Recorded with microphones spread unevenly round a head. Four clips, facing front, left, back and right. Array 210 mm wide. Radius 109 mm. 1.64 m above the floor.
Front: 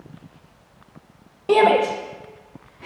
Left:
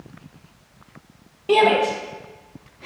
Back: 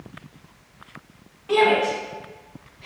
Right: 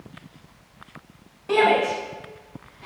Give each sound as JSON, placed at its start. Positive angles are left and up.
{"t": 1.5, "sound": "a shout", "azimuth_deg": 15, "distance_m": 2.0}